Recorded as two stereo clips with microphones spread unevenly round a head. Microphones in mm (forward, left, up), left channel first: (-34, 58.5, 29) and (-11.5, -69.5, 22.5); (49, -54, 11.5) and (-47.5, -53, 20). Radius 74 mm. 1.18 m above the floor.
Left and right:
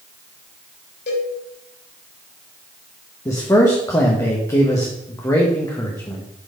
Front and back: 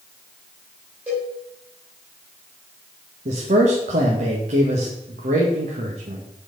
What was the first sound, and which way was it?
A cowbell, 100° left.